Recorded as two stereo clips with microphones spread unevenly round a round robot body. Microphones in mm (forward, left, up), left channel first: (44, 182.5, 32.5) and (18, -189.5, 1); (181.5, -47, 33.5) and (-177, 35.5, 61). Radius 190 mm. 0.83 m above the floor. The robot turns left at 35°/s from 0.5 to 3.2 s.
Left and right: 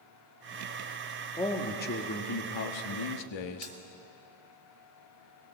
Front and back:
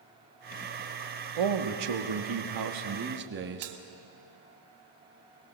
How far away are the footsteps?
I don't hear footsteps.